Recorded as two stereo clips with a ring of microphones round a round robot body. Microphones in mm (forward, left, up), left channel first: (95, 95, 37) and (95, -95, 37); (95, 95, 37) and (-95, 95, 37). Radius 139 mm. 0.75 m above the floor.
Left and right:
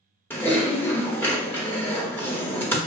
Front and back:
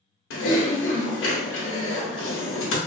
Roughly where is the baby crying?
I don't hear a baby crying.